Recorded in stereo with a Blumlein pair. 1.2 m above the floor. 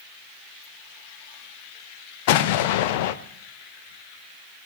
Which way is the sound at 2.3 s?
50° left.